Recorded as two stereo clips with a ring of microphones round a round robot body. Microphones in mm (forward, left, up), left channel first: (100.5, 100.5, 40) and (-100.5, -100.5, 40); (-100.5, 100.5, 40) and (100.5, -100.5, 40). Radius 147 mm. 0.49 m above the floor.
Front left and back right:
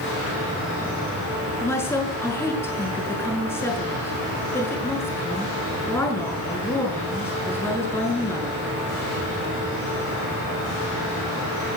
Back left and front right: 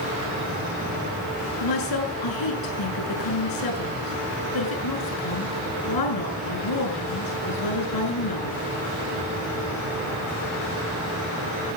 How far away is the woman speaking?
About 7 m.